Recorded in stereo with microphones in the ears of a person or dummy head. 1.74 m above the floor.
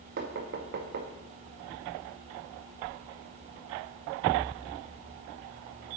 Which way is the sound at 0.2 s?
50° right (ahead or behind).